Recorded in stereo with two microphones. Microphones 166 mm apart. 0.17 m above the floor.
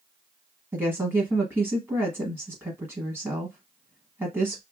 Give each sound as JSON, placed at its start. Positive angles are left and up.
{"t": 0.7, "sound": "a woman speaking", "side_deg": -15, "distance_m": 1.0}